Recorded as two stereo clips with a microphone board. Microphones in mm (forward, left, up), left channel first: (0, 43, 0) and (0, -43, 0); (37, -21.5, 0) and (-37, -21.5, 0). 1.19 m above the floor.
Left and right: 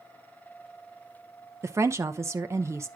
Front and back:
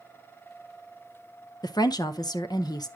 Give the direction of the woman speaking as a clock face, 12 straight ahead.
1 o'clock.